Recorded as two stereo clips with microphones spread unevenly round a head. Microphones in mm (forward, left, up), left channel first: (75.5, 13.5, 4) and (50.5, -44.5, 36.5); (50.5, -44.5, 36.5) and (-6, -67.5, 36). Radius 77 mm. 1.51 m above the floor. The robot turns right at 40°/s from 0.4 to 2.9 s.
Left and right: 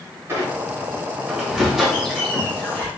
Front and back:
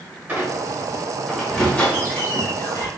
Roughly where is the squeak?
Right.